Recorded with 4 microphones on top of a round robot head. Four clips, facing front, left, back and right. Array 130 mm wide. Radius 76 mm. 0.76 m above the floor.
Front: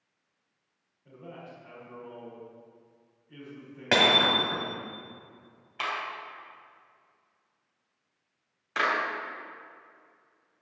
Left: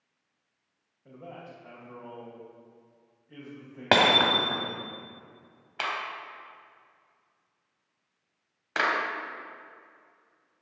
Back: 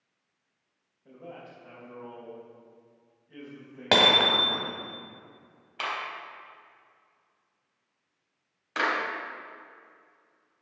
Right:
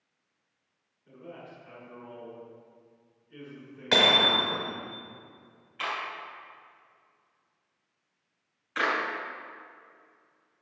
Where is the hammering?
110° left, 1.5 m.